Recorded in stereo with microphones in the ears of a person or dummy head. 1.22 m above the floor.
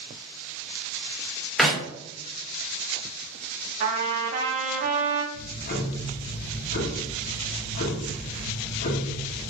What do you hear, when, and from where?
1.6 s a clap: 5° left (ahead or behind), 0.6 m
3.8 s a trumpet: 35° right (ahead or behind), 0.6 m
5.3 s ticking: 45° left (ahead or behind), 0.7 m